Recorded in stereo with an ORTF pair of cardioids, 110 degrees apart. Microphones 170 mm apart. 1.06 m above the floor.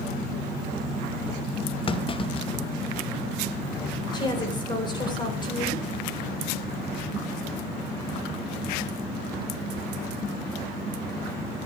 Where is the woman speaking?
25° left, 4 m.